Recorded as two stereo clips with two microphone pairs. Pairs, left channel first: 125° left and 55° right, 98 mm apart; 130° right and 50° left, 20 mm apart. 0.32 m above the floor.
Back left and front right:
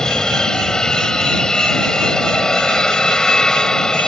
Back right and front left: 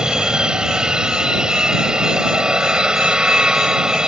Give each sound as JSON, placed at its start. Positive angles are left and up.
{"t": 0.0, "sound": "an aircraft", "azimuth_deg": 50}